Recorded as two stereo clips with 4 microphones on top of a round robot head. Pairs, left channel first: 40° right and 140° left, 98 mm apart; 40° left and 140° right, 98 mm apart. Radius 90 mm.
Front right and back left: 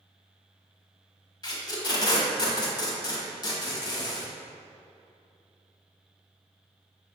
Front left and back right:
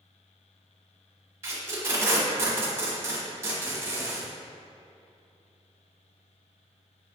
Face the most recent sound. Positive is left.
turn(degrees=-80)